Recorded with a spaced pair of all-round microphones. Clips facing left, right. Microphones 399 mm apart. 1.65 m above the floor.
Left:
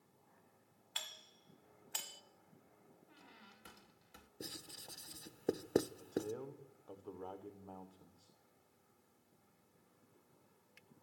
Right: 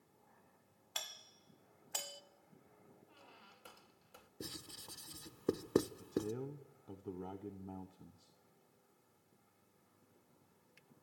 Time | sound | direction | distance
0.9 | a doorbell | 55° right (ahead or behind) | 1.3 m
3.1 | a squeak | 30° left (ahead or behind) | 1.4 m
4.4 | writing | 10° right (ahead or behind) | 0.6 m
6.0 | a man speaking | 35° right (ahead or behind) | 1.3 m